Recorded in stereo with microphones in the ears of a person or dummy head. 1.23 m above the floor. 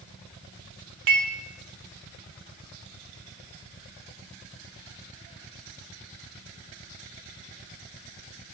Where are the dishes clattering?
50° right (ahead or behind), 0.6 m.